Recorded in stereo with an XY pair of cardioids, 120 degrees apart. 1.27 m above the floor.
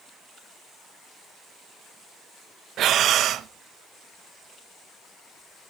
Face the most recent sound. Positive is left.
turn(degrees=-60)